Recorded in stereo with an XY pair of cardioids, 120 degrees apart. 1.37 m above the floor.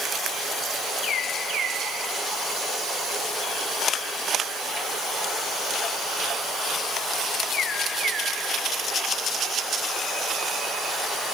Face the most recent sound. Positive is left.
No sound to turn to.